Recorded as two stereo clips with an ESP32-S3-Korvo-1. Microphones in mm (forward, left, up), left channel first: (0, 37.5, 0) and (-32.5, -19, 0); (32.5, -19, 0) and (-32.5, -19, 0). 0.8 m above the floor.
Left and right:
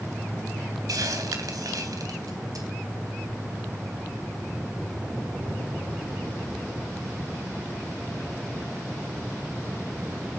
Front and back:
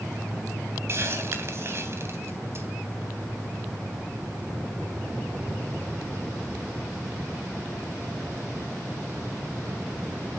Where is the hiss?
135° right, 3 m.